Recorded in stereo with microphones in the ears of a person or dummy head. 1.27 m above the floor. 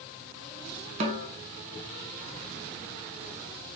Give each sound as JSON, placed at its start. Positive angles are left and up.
{"t": 1.0, "sound": "a snare drum", "side_deg": -35, "distance_m": 0.6}